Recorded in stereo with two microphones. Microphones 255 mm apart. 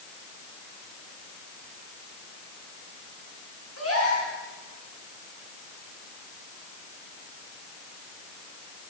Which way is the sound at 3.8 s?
65° left (ahead or behind).